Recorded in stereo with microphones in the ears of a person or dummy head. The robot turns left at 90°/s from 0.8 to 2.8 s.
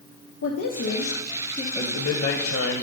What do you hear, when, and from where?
0.4 s a woman speaking: 105° left, 0.9 m; by 1.6 s 30° left, 0.9 m
1.8 s a man speaking: 150° left, 0.9 m; by 2.8 s 55° left, 0.9 m